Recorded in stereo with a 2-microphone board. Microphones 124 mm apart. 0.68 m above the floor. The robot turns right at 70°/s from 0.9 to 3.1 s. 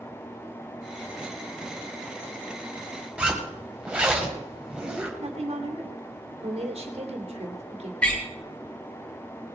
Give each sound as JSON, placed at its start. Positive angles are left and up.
{"t": 3.2, "sound": "a zipper", "side_deg": -10, "distance_m": 2.5}
{"t": 5.2, "sound": "a woman speaking", "side_deg": -55, "distance_m": 2.5}
{"t": 8.0, "sound": "a door slam", "side_deg": 10, "distance_m": 4.0}